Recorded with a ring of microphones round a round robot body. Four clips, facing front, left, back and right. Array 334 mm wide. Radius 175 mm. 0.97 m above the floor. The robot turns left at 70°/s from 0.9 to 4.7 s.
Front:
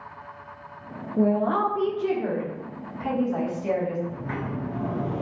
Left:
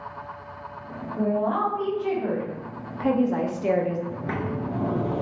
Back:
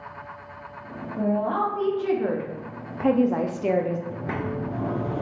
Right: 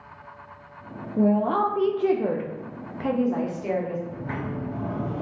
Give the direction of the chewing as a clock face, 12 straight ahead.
No chewing in this recording.